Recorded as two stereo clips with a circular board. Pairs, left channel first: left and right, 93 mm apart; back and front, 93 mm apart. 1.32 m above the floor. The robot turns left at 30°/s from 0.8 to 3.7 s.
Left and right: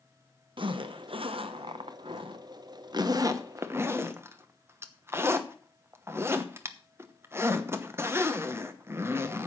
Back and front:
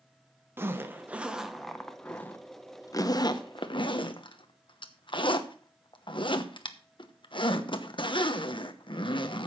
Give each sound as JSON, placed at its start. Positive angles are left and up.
{"t": 0.6, "sound": "a zipper", "azimuth_deg": -65, "distance_m": 1.0}